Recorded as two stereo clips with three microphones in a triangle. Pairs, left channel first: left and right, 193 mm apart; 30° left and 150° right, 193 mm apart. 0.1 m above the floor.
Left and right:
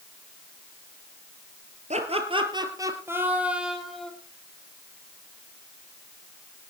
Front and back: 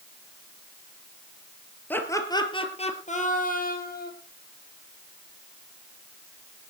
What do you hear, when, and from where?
1.9 s laughter: 50° right, 1.9 m; by 4.1 s straight ahead, 3 m